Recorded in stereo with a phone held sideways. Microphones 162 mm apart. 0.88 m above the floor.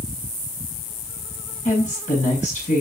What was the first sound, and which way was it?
A woman speaking, 50° left (ahead or behind).